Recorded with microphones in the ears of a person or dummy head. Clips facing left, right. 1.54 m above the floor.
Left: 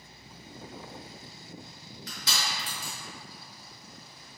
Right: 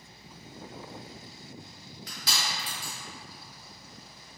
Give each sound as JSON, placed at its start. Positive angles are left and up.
{"t": 2.1, "sound": "crushing", "side_deg": -25, "distance_m": 1.5}